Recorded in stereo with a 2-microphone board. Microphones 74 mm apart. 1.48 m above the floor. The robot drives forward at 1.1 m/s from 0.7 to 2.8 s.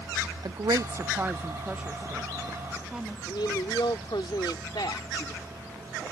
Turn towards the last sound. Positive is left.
turn(degrees=80)